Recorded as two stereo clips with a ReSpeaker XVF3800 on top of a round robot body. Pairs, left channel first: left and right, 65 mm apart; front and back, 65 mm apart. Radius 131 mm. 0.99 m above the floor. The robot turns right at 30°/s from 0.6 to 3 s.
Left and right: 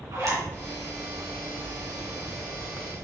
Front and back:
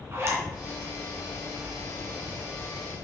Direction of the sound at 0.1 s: 130° right.